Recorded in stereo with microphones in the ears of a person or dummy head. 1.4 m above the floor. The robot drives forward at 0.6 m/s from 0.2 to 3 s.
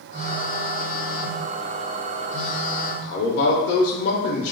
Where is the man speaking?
60° left (ahead or behind), 0.6 m.